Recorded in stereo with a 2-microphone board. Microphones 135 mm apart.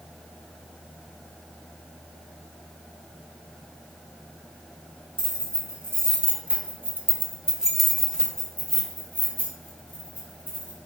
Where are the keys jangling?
15° right (ahead or behind), 1.7 m; by 10.8 s 10° left (ahead or behind), 2.5 m.